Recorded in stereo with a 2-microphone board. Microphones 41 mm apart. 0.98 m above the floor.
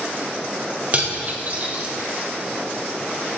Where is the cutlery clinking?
35° right (ahead or behind), 0.5 m.